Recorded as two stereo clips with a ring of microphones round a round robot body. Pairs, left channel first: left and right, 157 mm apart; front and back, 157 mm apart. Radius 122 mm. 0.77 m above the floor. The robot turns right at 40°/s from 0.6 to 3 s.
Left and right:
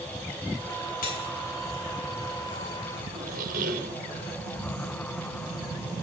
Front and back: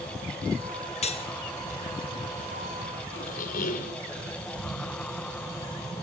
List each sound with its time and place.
1.0 s cutlery clinking: 45° left, 2 m; by 1.3 s 55° left, 2 m
3.2 s a squeak: 45° right, 1.3 m